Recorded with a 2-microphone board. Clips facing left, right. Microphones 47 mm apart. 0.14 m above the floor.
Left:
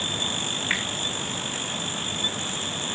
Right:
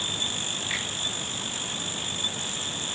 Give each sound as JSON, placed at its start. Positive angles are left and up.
{"t": 0.7, "sound": "a finger snap", "side_deg": 45, "distance_m": 7.5}